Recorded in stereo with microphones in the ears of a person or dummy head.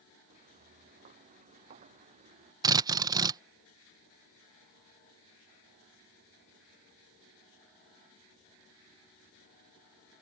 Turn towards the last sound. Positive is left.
turn(degrees=-15)  # may be behind; listen again after turning